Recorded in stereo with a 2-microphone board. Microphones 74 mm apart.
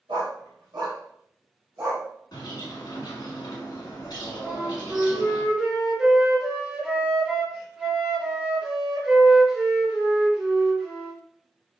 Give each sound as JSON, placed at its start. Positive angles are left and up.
{"t": 0.1, "sound": "a dog barking", "side_deg": -80, "distance_m": 1.8}
{"t": 2.3, "sound": "a bird", "side_deg": 60, "distance_m": 1.6}
{"t": 4.4, "sound": "a flute", "side_deg": -15, "distance_m": 1.1}